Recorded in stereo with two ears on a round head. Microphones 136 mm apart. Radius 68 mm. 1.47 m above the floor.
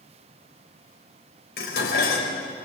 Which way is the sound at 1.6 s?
80° left.